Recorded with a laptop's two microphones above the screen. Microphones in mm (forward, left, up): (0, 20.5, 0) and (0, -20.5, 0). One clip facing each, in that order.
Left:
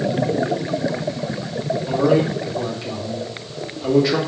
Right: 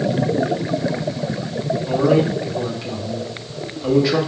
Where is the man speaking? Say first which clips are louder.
Right 1 dB; centre (ahead or behind), 2.0 m.